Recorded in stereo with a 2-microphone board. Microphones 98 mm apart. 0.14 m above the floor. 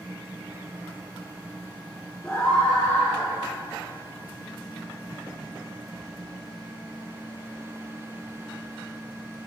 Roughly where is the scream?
Centre.